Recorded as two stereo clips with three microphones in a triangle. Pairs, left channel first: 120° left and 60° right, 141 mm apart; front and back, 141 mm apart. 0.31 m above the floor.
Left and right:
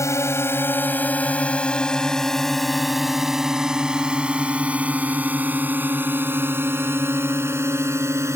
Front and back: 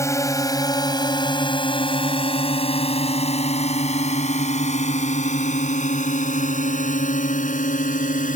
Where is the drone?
60° left; by 8.4 s 10° left.